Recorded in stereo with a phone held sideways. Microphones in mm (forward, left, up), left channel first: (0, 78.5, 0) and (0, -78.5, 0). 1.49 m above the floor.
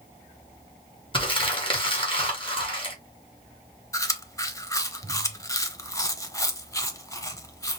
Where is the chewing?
20° left (ahead or behind), 0.8 m.